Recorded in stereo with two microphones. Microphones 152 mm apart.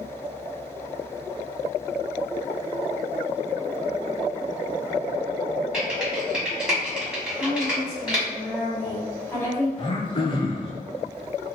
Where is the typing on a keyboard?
5° right (ahead or behind), 1.5 m.